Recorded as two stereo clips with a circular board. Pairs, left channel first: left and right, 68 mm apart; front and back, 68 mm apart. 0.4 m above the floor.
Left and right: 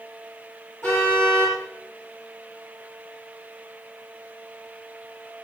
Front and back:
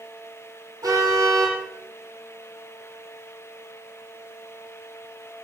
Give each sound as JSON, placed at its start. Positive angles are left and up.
{"t": 0.8, "sound": "a car horn", "azimuth_deg": 150, "distance_m": 8.0}